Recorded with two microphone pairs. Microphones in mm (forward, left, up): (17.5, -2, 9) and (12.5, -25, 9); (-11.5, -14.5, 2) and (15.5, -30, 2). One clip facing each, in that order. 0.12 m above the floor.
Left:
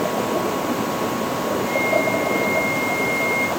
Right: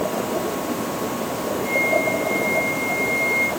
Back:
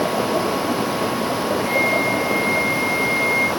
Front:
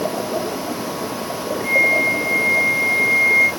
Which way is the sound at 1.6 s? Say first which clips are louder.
Right 1 dB, front 5 dB; 10° right.